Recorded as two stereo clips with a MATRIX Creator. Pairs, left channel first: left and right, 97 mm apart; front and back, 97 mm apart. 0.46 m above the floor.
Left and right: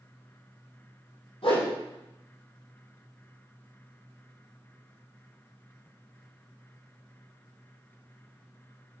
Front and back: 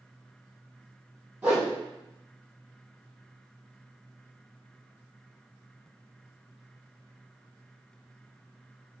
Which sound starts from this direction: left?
A whoosh, at 1.4 s.